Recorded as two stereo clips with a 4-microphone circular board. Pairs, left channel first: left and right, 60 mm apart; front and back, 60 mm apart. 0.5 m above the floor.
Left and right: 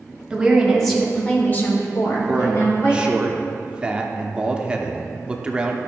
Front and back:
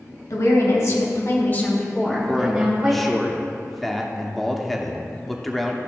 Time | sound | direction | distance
0.3 | a woman speaking | 15° right | 2 m
2.1 | a man speaking | 80° right | 0.7 m